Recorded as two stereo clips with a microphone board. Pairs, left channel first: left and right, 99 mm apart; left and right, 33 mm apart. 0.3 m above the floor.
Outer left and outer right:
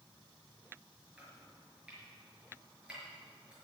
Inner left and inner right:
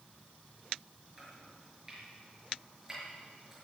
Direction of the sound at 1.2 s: 10° right (ahead or behind).